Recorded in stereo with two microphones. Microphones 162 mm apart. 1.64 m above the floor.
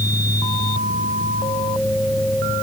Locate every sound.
Only background noise.